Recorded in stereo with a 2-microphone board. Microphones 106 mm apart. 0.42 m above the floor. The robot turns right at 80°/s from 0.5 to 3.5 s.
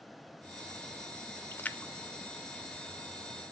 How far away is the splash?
About 0.5 m.